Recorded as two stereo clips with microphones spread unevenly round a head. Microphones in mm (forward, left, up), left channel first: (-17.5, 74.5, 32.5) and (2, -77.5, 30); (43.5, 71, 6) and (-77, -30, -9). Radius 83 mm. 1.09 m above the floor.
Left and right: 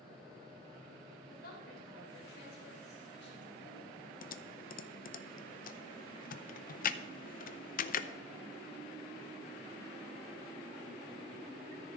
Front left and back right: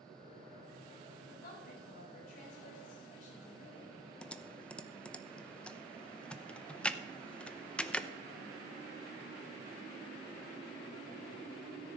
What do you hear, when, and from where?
1.3 s a woman speaking: 65° left, 4 m; by 4.0 s 90° left, 3.5 m
4.2 s typing on a keyboard: 125° left, 0.6 m